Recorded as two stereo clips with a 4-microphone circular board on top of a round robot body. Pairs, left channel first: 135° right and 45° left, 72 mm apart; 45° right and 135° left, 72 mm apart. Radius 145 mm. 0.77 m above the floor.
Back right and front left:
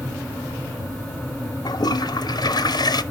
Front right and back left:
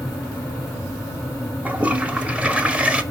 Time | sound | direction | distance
1.6 | a toilet flushing | 150° right | 1.1 m